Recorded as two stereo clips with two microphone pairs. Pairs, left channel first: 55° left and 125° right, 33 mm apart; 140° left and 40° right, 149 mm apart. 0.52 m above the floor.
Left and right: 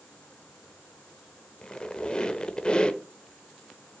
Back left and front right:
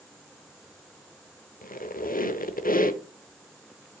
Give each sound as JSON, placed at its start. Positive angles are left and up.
{"t": 1.6, "sound": "a squeak", "azimuth_deg": 120, "distance_m": 0.7}